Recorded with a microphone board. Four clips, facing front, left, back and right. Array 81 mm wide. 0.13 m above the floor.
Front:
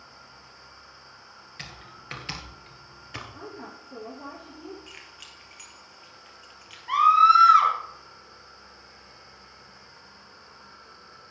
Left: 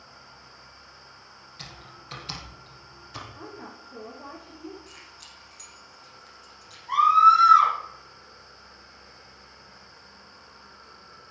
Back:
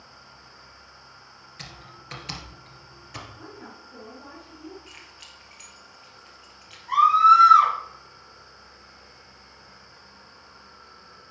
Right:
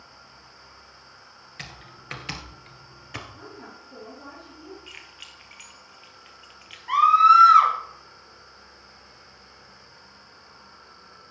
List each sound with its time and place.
1.6 s typing on a keyboard: 75° right, 1.7 m
3.3 s a woman speaking: 5° right, 3.5 m
4.9 s keys jangling: 85° right, 2 m
6.9 s a scream: 60° right, 2.5 m